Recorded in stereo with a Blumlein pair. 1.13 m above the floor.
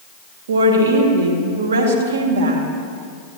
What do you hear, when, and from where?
0.5 s a woman speaking: 60° right, 1.8 m